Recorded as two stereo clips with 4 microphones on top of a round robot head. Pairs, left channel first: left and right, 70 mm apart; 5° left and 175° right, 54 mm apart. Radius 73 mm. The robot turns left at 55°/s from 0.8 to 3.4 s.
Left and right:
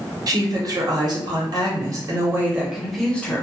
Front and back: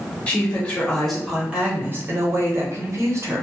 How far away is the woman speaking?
About 0.9 m.